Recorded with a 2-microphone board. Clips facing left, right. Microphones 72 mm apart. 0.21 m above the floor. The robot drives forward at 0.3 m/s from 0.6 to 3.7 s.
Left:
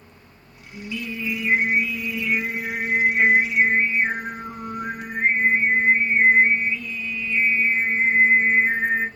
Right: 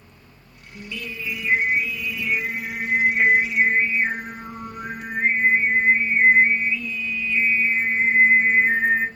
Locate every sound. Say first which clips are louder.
0.7 s singing: left 3 dB; 10° left (ahead or behind), 1.9 m